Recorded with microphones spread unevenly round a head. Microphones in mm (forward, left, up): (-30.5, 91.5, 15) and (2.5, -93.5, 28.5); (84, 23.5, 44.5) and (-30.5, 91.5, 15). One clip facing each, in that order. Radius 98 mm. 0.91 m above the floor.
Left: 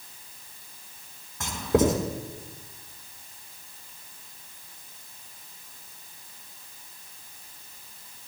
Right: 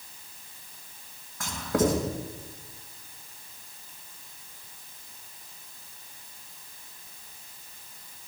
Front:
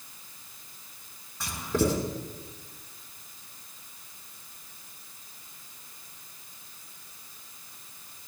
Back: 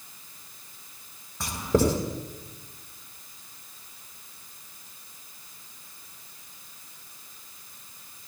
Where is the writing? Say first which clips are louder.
Left 3 dB, back 4 dB; 165° left, 4.5 m.